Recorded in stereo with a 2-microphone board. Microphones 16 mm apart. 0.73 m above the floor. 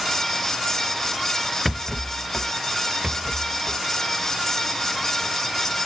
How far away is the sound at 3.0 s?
About 0.9 m.